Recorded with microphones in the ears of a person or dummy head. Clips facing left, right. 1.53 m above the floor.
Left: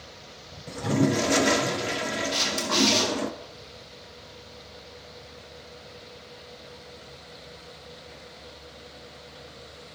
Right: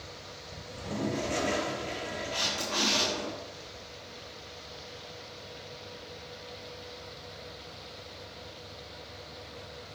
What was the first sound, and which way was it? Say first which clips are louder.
A toilet flushing: left 10 dB; 70° left (ahead or behind).